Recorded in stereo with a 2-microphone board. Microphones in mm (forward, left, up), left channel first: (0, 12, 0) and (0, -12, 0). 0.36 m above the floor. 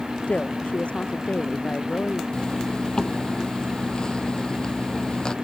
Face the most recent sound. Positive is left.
turn(degrees=35)  # may be behind; listen again after turning